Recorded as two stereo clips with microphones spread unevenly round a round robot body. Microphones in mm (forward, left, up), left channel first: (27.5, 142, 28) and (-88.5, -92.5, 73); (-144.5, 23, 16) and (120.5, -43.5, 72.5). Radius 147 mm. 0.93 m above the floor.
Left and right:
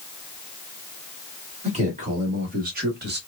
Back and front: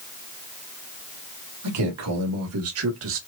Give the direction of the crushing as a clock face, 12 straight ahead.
I don't hear crushing.